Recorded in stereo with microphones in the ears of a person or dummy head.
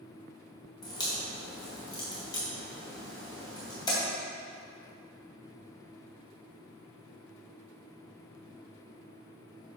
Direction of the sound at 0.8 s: 20° left (ahead or behind).